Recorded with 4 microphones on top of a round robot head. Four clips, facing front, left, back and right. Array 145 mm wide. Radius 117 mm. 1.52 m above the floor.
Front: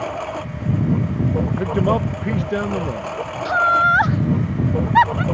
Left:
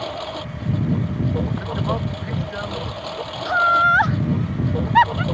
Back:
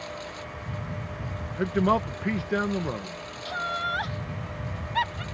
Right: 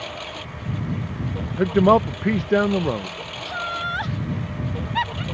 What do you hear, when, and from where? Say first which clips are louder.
0.0 s a lawn mower: left 5 dB, front 12 dB; 25° left
1.6 s a man speaking: right 9 dB, front 1 dB; 75° right
3.5 s laughter: left 12 dB, front 15 dB; 40° left